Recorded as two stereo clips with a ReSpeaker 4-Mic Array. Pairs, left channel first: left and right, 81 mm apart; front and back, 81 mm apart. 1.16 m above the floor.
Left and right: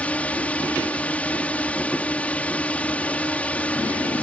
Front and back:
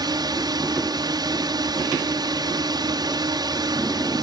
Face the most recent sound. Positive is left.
turn(degrees=160)